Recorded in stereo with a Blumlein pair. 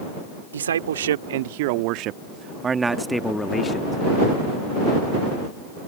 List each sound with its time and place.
0.5 s a man speaking: 65° right; by 4.0 s 25° left